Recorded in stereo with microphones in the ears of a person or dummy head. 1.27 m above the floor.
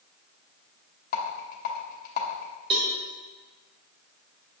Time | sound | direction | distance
1.1 | a rattle | 50° left (ahead or behind) | 1.0 m
2.7 | a cowbell | 25° right (ahead or behind) | 0.7 m